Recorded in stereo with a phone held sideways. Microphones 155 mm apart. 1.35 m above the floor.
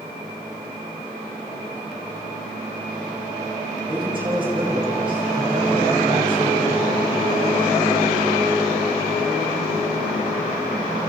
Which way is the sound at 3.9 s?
35° right (ahead or behind).